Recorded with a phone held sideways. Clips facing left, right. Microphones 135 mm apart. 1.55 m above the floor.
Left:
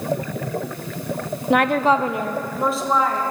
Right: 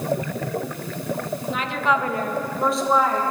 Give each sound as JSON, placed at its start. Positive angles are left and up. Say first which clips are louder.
{"t": 1.5, "sound": "a woman speaking", "louder": "left 7 dB", "side_deg": 75, "distance_m": 0.5}